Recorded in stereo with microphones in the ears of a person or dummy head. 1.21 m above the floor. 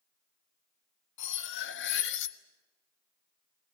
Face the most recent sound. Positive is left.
turn(degrees=65)  # may be behind; listen again after turning